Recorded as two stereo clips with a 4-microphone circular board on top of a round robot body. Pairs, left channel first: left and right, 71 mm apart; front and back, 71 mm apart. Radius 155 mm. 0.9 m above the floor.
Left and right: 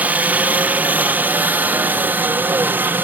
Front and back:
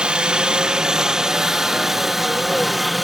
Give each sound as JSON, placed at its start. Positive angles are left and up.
{"t": 0.0, "sound": "a helicopter", "azimuth_deg": -120}